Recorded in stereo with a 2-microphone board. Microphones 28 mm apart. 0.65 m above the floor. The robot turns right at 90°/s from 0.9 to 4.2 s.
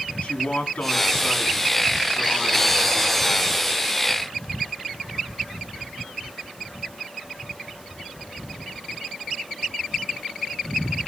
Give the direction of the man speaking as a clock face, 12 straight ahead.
10 o'clock.